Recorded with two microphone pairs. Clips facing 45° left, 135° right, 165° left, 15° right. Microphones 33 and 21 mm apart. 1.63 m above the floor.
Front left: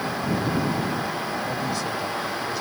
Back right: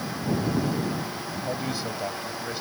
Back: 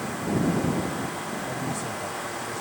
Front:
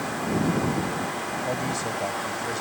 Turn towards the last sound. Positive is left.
turn(degrees=-65)